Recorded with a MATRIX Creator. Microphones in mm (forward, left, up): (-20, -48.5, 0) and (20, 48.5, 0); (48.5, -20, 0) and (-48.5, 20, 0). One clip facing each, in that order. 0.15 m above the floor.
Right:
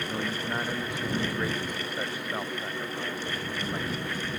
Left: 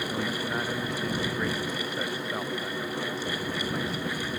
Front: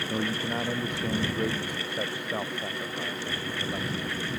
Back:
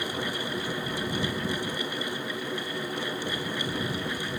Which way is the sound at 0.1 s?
30° right.